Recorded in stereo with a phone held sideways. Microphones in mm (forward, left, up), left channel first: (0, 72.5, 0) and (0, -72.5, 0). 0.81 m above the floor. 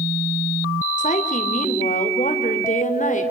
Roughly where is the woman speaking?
Left.